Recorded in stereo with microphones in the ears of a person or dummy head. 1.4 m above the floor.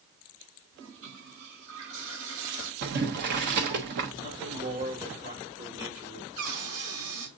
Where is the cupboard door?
85° right, 4.5 m.